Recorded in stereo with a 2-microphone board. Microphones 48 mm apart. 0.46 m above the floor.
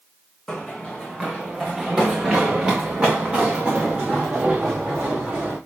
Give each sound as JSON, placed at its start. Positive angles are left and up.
{"t": 0.5, "sound": "running footsteps", "side_deg": 10, "distance_m": 1.5}